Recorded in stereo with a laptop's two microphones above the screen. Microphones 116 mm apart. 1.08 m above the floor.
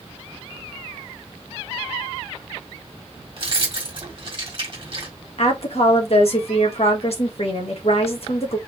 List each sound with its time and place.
3.4 s keys jangling: 50° right (ahead or behind), 1.7 m
5.4 s a woman speaking: 60° left (ahead or behind), 1.5 m